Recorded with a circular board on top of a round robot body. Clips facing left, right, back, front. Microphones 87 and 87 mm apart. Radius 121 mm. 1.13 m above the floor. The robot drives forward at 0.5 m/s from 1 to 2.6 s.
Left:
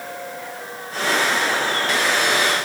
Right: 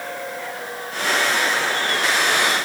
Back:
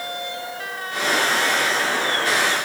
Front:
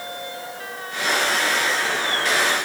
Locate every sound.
Only background noise.